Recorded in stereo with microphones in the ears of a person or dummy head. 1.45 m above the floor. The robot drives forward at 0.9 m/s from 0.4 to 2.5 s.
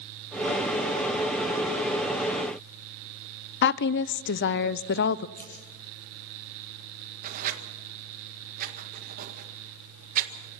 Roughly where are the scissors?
Centre.